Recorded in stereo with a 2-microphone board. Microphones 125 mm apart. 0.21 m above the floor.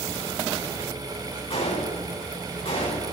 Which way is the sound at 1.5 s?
45° left (ahead or behind).